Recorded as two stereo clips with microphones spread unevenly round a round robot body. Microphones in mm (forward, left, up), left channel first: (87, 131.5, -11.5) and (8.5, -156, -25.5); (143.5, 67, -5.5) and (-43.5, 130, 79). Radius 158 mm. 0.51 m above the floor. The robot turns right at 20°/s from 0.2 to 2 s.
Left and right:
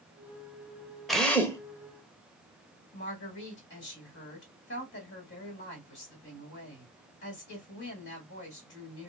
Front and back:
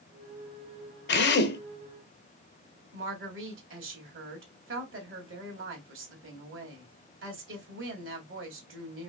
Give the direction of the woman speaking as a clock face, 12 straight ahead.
8 o'clock.